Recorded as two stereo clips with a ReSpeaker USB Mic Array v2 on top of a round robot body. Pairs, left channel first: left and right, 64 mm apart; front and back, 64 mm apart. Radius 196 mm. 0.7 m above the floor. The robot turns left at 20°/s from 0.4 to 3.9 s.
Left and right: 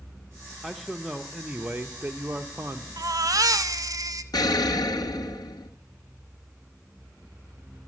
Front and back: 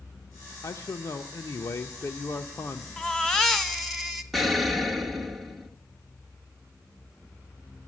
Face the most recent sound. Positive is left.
turn(degrees=90)